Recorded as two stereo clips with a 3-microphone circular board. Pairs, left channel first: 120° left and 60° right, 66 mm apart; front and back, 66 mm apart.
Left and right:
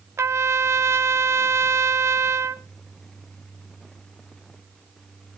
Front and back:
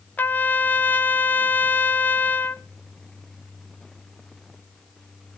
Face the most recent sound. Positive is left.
turn(degrees=-50)